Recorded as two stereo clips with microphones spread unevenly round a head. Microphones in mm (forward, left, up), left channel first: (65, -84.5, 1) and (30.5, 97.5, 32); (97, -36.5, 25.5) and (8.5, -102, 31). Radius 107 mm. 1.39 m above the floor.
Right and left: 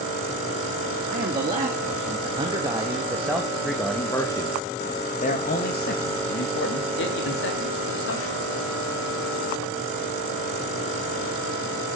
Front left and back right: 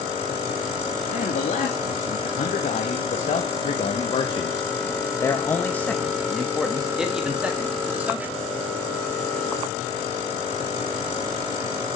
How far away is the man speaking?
About 2.5 m.